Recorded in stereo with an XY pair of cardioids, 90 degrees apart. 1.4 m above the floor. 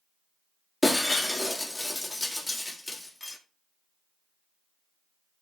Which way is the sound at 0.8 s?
20° left.